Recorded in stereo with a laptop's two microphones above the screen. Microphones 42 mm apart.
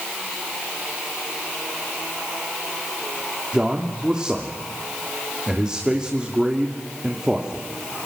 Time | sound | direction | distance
3.5 | a man speaking | 15° right (ahead or behind) | 2.5 m